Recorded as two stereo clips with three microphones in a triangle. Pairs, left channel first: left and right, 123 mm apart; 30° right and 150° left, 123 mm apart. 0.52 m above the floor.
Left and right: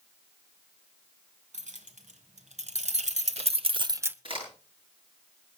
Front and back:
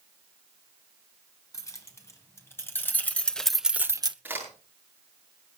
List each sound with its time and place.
1.5 s keys jangling: 95° right, 3 m; by 4.2 s 165° right, 0.6 m
4.2 s a crack: 135° right, 8.5 m